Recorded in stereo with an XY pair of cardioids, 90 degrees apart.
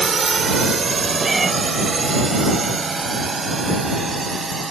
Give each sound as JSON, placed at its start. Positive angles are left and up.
{"t": 0.0, "sound": "a drone", "azimuth_deg": -35}
{"t": 1.2, "sound": "a cat meowing", "azimuth_deg": -25}